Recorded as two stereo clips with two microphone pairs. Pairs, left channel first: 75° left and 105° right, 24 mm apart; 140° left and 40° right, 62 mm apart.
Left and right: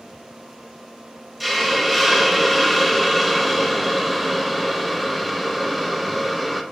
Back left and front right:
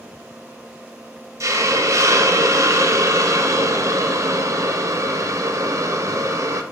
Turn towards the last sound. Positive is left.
turn(degrees=-5)